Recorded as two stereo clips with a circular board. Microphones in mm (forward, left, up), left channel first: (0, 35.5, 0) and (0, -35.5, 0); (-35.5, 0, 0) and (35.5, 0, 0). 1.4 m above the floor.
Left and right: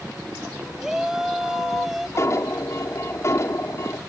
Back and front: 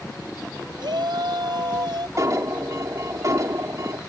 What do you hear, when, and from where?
0.8 s a shout: 5° right
2.2 s an alarm: 45° left